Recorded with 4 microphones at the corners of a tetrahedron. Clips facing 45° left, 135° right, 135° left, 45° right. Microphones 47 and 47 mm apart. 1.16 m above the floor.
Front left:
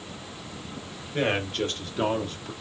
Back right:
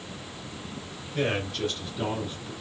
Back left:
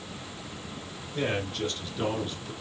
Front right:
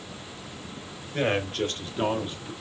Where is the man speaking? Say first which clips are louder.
Front left 2 dB, front right 4 dB; 10° right, 1.4 m; by 2.5 s 30° left, 1.1 m.